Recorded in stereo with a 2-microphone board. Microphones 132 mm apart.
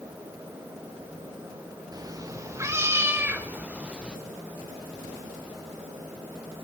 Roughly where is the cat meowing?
Right.